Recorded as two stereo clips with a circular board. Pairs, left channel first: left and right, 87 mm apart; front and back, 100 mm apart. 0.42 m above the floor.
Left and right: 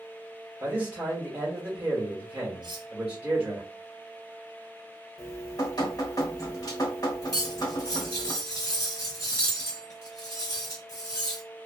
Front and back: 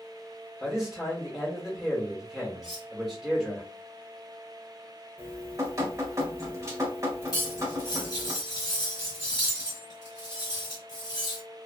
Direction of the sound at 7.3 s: 40° left.